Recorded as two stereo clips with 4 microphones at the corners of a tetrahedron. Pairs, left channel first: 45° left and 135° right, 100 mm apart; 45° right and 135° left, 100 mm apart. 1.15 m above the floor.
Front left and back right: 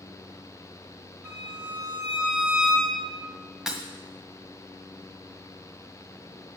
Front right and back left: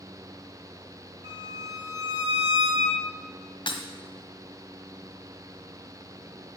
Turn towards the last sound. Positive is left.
turn(degrees=-50)